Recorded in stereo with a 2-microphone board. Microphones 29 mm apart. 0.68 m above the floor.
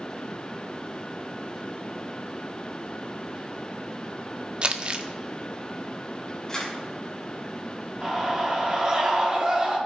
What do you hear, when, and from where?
4.6 s crumpling: 40° right (ahead or behind), 0.9 m
6.5 s a camera shutter: 15° left (ahead or behind), 5.5 m
8.0 s a scream: 25° right (ahead or behind), 6.5 m